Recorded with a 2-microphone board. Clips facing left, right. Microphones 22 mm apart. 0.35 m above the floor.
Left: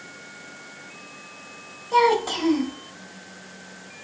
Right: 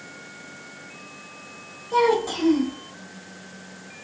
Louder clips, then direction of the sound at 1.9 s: Left 1 dB; 35° left (ahead or behind).